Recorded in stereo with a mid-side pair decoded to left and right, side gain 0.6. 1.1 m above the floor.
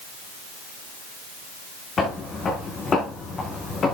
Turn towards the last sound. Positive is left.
turn(degrees=35)